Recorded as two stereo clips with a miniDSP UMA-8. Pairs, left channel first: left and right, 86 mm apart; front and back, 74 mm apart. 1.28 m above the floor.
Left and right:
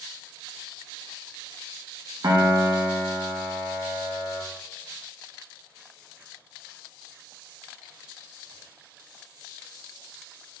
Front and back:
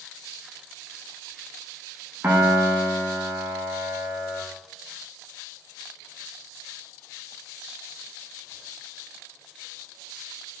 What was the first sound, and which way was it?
A piano, 120° right.